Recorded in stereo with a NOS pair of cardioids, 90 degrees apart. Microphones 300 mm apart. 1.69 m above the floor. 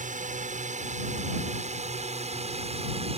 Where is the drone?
25° right; by 3.2 s 20° right.